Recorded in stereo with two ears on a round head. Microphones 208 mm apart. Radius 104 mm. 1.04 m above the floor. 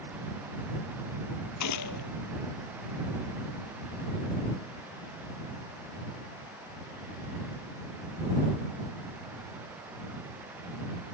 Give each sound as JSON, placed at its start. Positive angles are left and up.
{"t": 1.6, "sound": "a gunshot", "side_deg": 85}